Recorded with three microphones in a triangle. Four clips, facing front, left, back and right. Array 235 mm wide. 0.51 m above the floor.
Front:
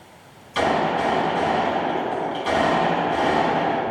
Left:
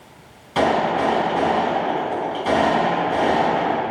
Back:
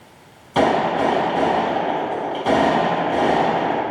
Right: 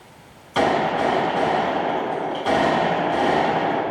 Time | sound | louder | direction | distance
0.6 | a gunshot | left 1 dB, back 3 dB | straight behind | 3.5 m